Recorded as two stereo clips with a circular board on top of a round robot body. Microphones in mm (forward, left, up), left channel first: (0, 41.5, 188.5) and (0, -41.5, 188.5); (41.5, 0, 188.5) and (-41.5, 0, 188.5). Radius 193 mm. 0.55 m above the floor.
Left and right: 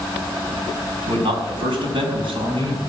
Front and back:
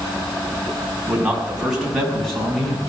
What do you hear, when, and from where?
1.1 s a man speaking: 100° right, 5.5 m; by 2.8 s 85° right, 6 m